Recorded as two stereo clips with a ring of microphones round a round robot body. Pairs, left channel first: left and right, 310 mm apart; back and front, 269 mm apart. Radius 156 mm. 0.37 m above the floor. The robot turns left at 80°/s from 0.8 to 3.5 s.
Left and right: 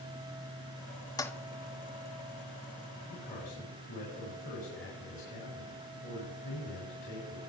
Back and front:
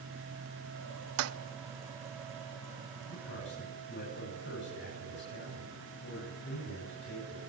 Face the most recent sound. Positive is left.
turn(degrees=140)